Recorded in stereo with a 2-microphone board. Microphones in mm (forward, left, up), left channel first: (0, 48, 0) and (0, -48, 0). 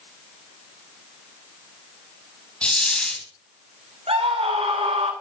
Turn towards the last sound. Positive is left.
turn(degrees=-80)